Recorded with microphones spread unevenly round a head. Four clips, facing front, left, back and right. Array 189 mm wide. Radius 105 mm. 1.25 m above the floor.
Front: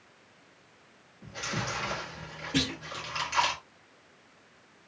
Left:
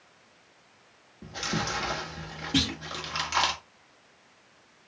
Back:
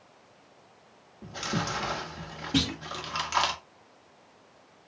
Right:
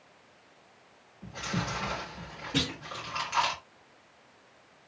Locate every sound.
1.2 s chewing: 125° left, 2 m
2.5 s a clunk: 145° left, 3.5 m